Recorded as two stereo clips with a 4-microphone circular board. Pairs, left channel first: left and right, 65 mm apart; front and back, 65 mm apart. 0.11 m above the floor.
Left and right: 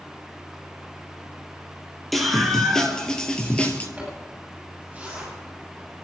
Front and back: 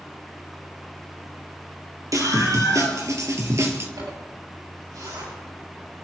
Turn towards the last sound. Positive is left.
turn(degrees=-160)